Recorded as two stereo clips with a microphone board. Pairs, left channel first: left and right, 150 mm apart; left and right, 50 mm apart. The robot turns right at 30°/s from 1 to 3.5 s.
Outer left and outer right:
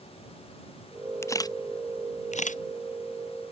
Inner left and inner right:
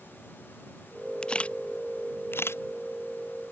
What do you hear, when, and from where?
1.2 s a camera shutter: 20° left (ahead or behind); by 2.6 s 60° left (ahead or behind)